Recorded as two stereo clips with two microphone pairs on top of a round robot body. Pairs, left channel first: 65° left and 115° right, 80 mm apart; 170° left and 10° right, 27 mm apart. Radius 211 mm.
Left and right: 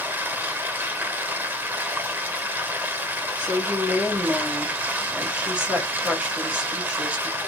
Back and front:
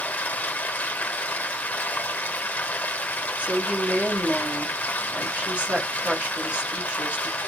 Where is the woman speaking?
40° right, 2.5 m.